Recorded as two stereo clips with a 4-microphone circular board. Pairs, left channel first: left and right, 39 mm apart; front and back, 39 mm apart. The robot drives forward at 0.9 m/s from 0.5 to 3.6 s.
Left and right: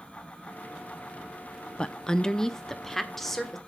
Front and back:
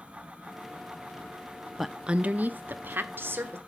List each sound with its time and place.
1.8 s a woman speaking: 95° left, 0.5 m; by 3.6 s 175° left, 1.7 m